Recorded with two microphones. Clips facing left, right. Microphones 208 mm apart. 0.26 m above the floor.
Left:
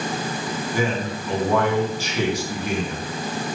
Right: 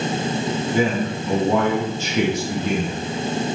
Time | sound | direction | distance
0.7 | a man speaking | 25° right (ahead or behind) | 3 m